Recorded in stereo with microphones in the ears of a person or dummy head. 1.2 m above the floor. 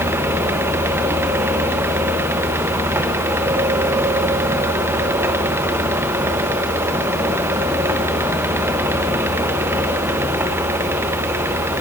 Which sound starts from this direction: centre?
A fan, at 0.0 s.